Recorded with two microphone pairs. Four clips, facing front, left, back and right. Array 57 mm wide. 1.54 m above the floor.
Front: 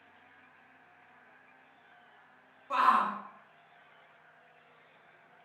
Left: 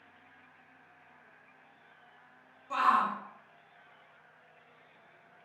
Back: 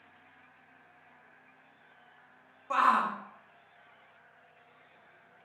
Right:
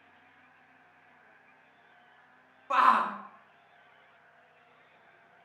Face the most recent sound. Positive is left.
turn(degrees=-105)